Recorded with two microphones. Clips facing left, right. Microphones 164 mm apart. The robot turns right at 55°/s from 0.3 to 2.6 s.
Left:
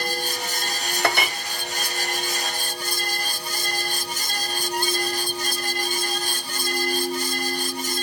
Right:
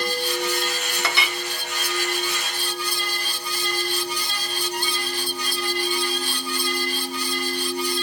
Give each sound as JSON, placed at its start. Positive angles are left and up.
{"t": 1.0, "sound": "a clink", "side_deg": 55, "distance_m": 0.6}